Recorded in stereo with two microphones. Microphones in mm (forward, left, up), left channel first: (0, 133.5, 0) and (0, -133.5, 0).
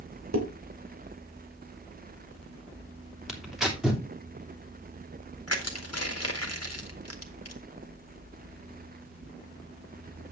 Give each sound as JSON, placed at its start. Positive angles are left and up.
{"t": 0.3, "sound": "dishes clattering", "side_deg": -75, "distance_m": 2.5}
{"t": 3.3, "sound": "tearing paper", "side_deg": -5, "distance_m": 2.5}
{"t": 5.5, "sound": "crushing", "side_deg": 65, "distance_m": 1.9}